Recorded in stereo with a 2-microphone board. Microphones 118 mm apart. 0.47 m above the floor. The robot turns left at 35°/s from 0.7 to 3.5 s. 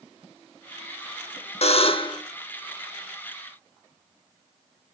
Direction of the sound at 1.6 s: 60° left (ahead or behind).